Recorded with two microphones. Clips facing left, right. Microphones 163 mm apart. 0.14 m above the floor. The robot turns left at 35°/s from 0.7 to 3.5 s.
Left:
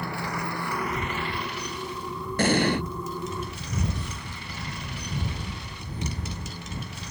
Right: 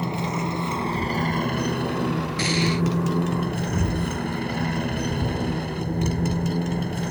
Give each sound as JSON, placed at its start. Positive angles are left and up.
{"t": 0.0, "sound": "a motorcycle", "side_deg": -20}
{"t": 2.4, "sound": "an explosion", "side_deg": 50}